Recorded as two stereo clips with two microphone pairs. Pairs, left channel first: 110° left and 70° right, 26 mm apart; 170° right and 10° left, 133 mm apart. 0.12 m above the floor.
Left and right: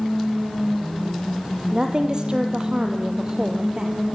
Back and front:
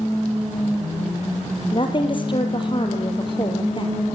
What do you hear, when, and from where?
1.7 s a woman speaking: 120° right, 2.5 m